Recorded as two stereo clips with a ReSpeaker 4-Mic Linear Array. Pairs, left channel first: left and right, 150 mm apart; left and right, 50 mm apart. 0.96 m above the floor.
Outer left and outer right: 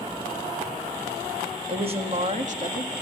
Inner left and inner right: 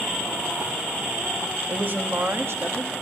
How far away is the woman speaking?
About 1.7 m.